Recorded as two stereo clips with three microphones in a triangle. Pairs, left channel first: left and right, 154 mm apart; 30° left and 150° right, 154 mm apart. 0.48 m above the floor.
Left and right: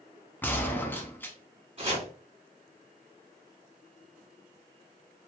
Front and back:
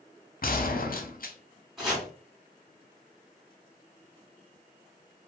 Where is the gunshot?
15° left, 0.5 m.